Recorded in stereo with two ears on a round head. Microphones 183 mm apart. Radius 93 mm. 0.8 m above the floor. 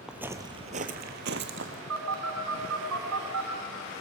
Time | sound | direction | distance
0.1 | footsteps | 5° right (ahead or behind) | 1.3 m
1.9 | a phone buzzing | 80° right | 3 m